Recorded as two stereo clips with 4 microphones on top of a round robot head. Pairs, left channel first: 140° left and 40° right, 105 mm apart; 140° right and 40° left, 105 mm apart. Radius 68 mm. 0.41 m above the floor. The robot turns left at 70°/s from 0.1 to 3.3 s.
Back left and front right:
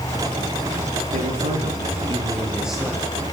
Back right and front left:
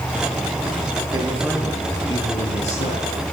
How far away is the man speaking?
About 8 m.